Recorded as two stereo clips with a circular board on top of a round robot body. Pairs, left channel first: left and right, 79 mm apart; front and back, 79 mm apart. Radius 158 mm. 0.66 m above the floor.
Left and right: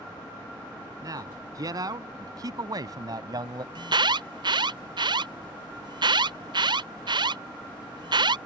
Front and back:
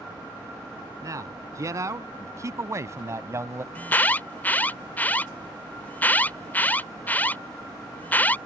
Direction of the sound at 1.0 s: 130° right.